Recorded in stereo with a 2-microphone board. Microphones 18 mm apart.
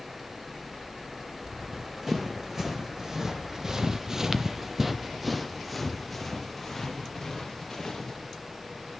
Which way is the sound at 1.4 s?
25° right (ahead or behind).